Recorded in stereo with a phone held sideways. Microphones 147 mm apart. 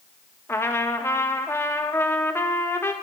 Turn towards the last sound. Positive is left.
turn(degrees=15)  # may be behind; listen again after turning